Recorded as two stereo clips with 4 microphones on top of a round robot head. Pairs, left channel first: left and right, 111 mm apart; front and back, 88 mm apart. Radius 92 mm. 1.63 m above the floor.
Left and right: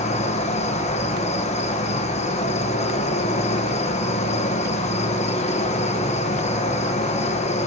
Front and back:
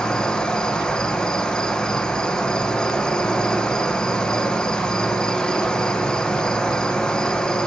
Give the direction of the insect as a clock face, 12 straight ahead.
9 o'clock.